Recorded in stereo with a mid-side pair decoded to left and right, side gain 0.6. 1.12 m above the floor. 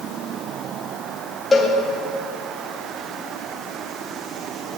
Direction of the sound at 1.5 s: 15° left.